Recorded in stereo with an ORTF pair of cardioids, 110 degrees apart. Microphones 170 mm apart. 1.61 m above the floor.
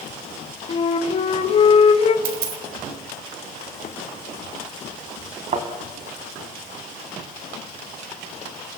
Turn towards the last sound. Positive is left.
turn(degrees=-40)